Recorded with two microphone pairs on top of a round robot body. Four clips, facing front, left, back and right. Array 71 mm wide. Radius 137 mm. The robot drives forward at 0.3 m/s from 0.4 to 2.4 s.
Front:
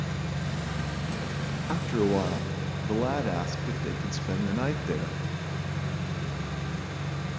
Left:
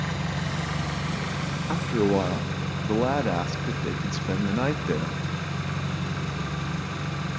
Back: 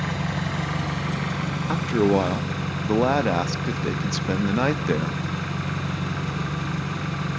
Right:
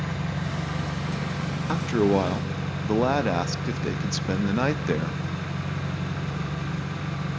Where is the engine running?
165° left, 1.6 m; by 7.4 s 170° left, 2 m.